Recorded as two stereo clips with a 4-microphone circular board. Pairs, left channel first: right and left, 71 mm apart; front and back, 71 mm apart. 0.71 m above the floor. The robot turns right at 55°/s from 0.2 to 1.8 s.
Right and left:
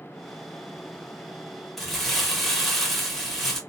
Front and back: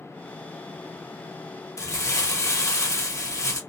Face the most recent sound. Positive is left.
turn(degrees=0)